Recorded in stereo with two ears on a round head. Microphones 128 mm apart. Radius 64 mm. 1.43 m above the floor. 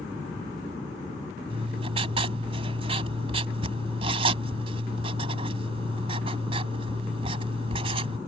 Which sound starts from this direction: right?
Writing, at 1.5 s.